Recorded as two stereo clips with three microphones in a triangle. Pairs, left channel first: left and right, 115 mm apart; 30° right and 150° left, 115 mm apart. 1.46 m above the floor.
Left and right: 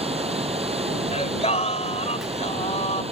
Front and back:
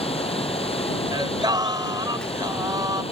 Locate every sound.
0.0 s running water: 60° right
1.1 s singing: 100° left